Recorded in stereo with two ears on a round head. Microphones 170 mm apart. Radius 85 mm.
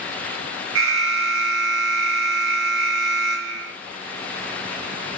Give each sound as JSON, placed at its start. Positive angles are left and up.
{"t": 0.8, "sound": "an alarm", "side_deg": -80, "distance_m": 4.5}